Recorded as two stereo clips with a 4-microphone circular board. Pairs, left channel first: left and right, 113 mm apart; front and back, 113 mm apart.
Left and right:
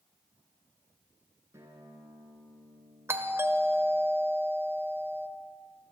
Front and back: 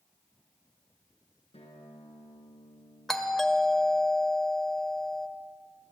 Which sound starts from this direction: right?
A doorbell, at 3.1 s.